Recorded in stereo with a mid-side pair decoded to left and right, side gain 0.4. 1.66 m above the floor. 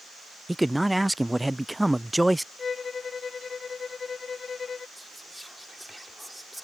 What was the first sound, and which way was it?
A man speaking, 5° right.